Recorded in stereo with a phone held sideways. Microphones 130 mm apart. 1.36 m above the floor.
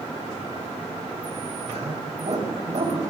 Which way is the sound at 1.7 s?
65° right (ahead or behind).